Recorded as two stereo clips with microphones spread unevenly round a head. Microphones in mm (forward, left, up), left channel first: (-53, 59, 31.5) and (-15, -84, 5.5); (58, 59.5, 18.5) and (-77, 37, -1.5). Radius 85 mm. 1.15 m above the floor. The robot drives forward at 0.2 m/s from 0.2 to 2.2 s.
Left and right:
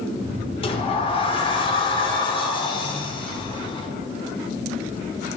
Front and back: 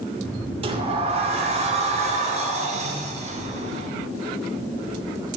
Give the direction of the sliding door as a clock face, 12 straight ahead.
7 o'clock.